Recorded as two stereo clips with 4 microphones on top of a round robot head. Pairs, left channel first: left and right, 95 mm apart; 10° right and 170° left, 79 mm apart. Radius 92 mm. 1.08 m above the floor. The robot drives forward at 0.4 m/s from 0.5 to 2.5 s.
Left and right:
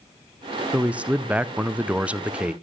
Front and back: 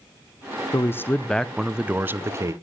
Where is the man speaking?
20° right, 0.6 m; by 2.5 s 165° right, 0.6 m.